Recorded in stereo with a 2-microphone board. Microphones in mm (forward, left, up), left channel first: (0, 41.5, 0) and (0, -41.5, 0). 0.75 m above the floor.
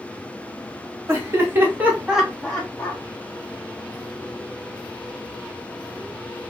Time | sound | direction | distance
1.1 | laughter | 35° right (ahead or behind) | 1.3 m